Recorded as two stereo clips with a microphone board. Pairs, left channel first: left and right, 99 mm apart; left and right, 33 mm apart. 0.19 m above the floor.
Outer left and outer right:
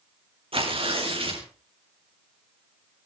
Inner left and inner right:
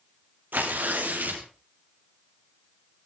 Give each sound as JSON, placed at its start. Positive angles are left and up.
{"t": 0.5, "sound": "tearing paper", "side_deg": -75, "distance_m": 5.0}